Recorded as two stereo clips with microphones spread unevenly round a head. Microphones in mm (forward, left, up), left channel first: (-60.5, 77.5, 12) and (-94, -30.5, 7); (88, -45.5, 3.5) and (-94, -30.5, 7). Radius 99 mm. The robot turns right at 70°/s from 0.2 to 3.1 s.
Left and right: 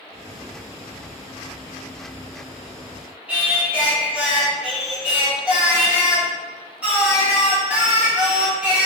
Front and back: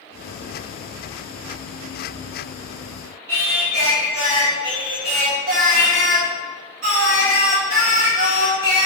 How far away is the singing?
About 1.4 m.